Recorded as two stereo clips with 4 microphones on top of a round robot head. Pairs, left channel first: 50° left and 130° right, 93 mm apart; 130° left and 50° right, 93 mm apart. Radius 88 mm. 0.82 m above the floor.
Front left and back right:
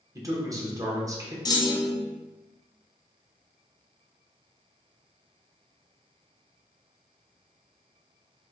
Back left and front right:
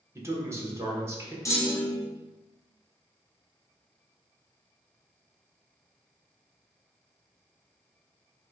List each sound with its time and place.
0.1 s a man speaking: 95° right, 1.1 m
1.4 s a clunk: 80° left, 0.9 m